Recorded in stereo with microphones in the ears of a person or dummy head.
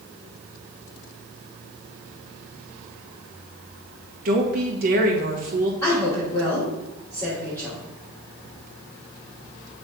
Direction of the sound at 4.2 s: 45° right (ahead or behind).